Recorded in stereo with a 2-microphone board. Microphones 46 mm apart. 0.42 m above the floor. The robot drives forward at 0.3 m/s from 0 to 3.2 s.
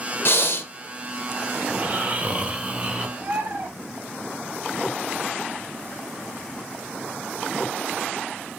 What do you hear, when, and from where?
0.2 s breathing: 55° left (ahead or behind), 0.5 m; by 0.7 s 60° left (ahead or behind), 0.5 m
1.7 s snoring: 35° right (ahead or behind), 0.5 m; by 3.1 s 25° right (ahead or behind), 0.7 m
3.2 s a bird: 55° right (ahead or behind), 1.4 m